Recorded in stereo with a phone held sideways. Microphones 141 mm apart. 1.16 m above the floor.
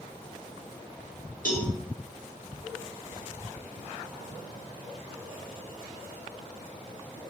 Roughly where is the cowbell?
Left.